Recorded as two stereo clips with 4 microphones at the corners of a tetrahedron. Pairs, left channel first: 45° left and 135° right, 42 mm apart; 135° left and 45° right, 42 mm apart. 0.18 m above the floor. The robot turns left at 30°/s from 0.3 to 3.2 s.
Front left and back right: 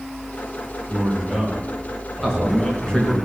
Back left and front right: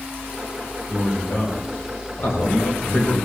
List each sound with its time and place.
0.9 s a man speaking: 160° left, 5.5 m; by 3.2 s 90° left, 5.5 m
2.2 s a man speaking: 130° left, 3 m; by 3.1 s 105° left, 3 m